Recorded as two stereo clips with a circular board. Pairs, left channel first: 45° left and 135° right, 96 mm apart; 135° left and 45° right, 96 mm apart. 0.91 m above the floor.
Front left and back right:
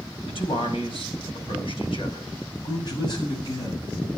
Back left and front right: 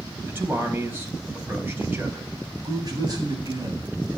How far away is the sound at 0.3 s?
About 4.5 m.